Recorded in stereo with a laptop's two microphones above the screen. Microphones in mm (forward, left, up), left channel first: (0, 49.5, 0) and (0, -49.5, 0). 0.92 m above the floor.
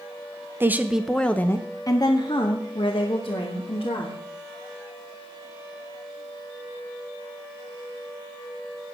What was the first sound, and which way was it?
A woman speaking, 25° right (ahead or behind).